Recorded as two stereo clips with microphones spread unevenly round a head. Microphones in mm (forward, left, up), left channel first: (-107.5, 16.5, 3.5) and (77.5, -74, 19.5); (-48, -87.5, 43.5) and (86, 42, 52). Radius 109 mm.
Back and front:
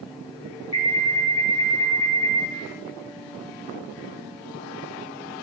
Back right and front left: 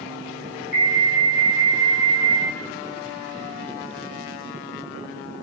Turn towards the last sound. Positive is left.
turn(degrees=175)